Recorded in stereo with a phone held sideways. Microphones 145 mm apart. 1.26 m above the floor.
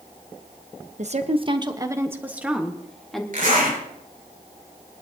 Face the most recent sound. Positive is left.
turn(degrees=-70)  # may be behind; listen again after turning